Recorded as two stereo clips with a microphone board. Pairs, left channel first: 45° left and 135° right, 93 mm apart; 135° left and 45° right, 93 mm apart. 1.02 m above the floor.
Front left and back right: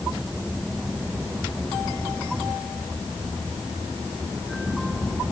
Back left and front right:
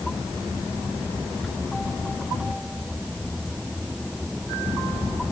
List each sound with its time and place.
Only background noise.